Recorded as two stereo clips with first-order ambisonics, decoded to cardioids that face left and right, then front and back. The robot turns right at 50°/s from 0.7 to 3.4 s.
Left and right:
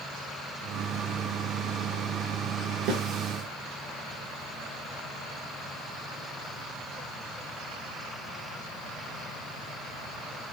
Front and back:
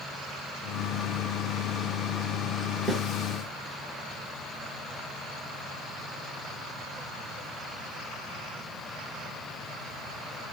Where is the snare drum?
90° right, 1.7 m; by 3.0 s 80° right, 1.7 m.